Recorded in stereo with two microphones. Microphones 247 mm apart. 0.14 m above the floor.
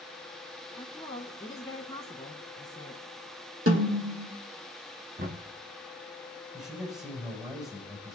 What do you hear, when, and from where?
0.8 s a woman speaking: 15° left (ahead or behind), 1.2 m
3.7 s a snare drum: 60° right (ahead or behind), 2 m
5.2 s knocking: 40° right (ahead or behind), 1.4 m
6.5 s a man speaking: 15° right (ahead or behind), 6 m